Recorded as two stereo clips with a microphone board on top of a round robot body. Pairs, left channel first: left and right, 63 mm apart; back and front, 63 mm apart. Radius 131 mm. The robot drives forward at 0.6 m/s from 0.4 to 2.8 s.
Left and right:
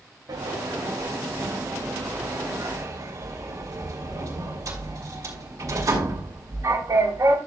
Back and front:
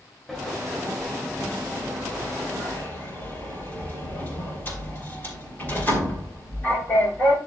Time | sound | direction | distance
0.3 | a sliding door | 100° right | 3 m